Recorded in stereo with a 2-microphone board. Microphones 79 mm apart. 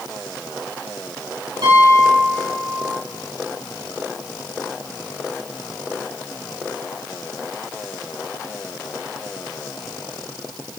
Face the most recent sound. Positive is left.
turn(degrees=-65)  # may be behind; listen again after turning